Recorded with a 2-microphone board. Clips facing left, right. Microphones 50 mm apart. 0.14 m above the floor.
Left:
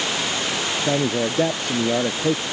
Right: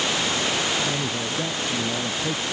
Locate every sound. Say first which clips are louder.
0.8 s a man speaking: left 5 dB; 65° left (ahead or behind); by 2.4 s 55° left (ahead or behind)